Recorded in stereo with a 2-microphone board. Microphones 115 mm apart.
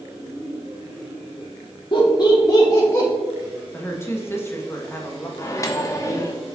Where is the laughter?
50° left (ahead or behind), 1.2 m; by 3.1 s 25° left (ahead or behind), 2 m.